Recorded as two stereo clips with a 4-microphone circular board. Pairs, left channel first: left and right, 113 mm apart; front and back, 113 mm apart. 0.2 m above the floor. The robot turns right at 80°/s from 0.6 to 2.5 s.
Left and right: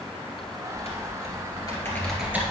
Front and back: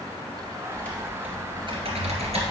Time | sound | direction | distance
0.7 | typing on a keyboard | 65° left | 2 m